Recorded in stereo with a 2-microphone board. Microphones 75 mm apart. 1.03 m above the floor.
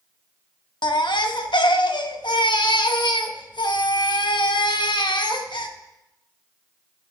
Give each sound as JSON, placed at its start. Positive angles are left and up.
{"t": 0.8, "sound": "a baby crying", "side_deg": 85, "distance_m": 0.8}